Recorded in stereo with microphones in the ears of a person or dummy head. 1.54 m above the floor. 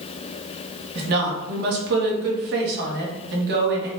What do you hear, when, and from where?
0.9 s a woman speaking: 60° right (ahead or behind), 1.0 m